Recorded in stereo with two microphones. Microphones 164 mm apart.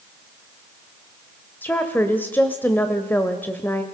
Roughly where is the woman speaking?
Centre.